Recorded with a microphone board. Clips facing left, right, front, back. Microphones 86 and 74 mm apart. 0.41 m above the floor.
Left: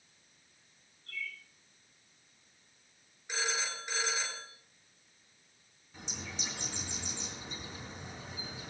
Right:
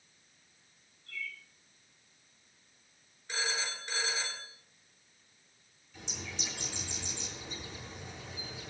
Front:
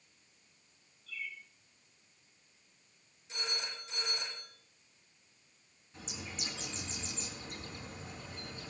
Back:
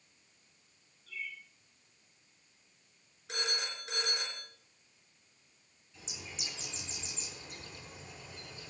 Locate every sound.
1.1 s a bird: 135° left, 8.5 m
3.3 s a phone ringing: 170° left, 3.5 m
5.9 s a bird: 40° left, 4 m